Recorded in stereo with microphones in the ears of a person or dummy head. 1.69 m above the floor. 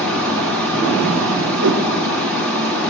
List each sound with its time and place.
0.0 s running water: 5° left (ahead or behind), 1.3 m
1.6 s a whoosh: 55° right (ahead or behind), 0.6 m